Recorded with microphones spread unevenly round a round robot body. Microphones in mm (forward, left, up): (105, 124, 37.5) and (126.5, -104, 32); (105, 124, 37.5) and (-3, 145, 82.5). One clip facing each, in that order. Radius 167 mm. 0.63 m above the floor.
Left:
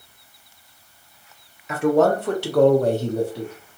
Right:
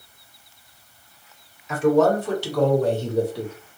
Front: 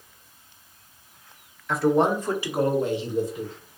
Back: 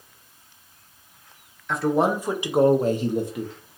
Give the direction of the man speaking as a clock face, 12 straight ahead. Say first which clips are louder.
Even, front 1 dB; 10 o'clock.